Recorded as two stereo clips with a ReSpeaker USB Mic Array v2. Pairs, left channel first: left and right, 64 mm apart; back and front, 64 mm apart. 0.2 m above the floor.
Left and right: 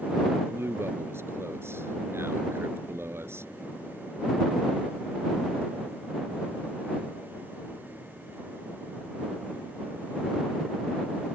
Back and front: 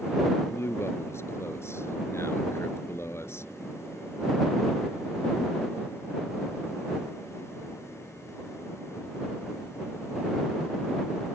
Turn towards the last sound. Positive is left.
turn(degrees=-135)